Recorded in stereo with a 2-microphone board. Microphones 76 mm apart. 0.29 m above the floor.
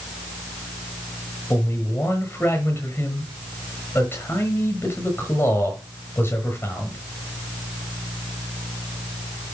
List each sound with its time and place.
1.5 s a man speaking: 35° left (ahead or behind), 5.5 m